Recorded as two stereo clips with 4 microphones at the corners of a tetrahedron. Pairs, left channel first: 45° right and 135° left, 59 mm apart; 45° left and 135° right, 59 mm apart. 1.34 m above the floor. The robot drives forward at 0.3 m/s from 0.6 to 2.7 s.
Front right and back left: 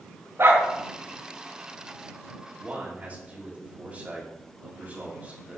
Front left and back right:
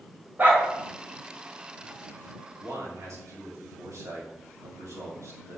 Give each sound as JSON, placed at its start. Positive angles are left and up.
{"t": 0.4, "sound": "a dog barking", "azimuth_deg": 170, "distance_m": 2.5}
{"t": 2.6, "sound": "a man speaking", "azimuth_deg": -165, "distance_m": 2.5}